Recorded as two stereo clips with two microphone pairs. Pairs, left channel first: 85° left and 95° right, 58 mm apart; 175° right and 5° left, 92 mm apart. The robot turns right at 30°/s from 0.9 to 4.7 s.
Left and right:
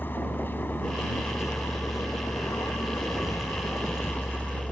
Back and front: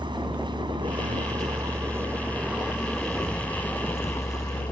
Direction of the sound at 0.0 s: 35° left.